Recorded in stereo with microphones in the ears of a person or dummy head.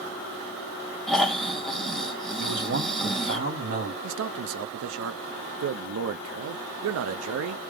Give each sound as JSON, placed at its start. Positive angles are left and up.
{"t": 1.1, "sound": "snoring", "side_deg": 5, "distance_m": 0.6}
{"t": 2.4, "sound": "a man speaking", "side_deg": -55, "distance_m": 2.5}
{"t": 4.0, "sound": "a man speaking", "side_deg": -80, "distance_m": 0.5}